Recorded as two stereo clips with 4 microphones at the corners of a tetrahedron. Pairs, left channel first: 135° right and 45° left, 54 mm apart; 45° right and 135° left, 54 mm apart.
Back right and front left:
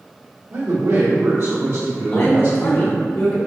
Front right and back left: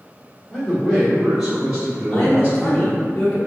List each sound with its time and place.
0.5 s a man speaking: 25° left, 1.6 m; by 3.0 s 90° left, 2.5 m
2.1 s a man speaking: 115° right, 1.2 m